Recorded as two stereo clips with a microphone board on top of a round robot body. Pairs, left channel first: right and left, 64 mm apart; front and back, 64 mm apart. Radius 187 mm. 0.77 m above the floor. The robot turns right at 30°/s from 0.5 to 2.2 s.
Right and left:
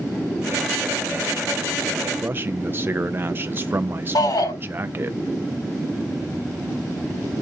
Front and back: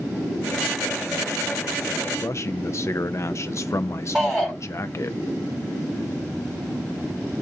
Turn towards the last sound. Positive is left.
turn(degrees=-90)